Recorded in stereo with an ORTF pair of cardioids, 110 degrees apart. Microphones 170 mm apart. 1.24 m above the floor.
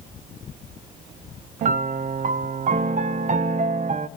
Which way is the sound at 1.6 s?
50° right.